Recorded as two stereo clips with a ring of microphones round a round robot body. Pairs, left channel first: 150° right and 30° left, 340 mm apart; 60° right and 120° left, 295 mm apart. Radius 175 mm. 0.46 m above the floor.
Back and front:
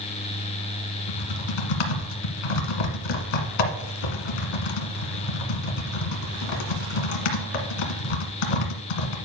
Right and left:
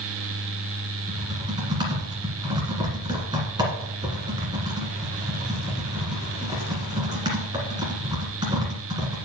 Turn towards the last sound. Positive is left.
turn(degrees=-160)